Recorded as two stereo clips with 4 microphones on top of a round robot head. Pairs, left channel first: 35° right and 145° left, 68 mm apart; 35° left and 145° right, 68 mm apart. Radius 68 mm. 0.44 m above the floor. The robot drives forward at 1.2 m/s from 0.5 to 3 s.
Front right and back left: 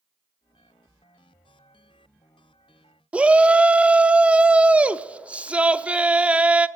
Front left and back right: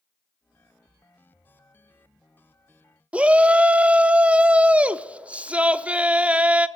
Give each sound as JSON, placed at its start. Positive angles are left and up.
{"t": 3.1, "sound": "a shout", "azimuth_deg": 180, "distance_m": 0.9}